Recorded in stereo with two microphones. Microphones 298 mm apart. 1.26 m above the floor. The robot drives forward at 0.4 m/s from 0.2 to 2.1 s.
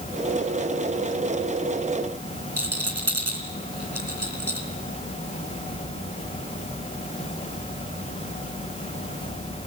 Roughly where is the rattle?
Right.